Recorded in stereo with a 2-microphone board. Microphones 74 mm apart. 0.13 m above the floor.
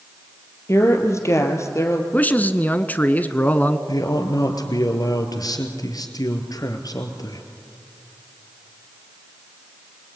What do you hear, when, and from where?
0.7 s a woman speaking: 40° left (ahead or behind), 3.5 m
2.1 s a man speaking: 25° left (ahead or behind), 1.2 m
3.9 s a man speaking: 60° left (ahead or behind), 3 m